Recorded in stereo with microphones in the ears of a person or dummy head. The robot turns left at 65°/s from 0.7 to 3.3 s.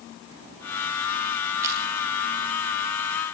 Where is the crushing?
20° right (ahead or behind), 2 m; by 1.8 s 10° right (ahead or behind), 2 m.